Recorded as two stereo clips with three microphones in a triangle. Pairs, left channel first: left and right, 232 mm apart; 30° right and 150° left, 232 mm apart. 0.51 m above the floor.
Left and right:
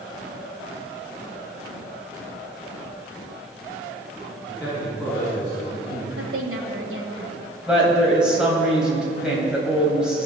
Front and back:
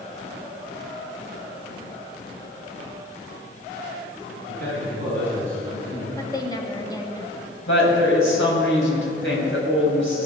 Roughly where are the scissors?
No scissors in this recording.